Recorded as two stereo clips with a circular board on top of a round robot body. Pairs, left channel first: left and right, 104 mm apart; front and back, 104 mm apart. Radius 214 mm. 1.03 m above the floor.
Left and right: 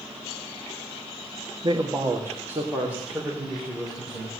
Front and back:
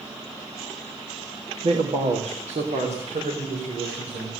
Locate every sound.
1.6 s a man speaking: 145° right, 1.6 m; by 4.3 s 175° right, 5.5 m